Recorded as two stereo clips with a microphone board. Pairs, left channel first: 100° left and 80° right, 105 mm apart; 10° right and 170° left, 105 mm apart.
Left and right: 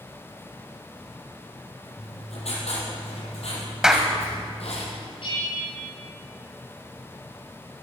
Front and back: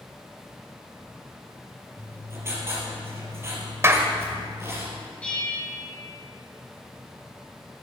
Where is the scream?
I don't hear a scream.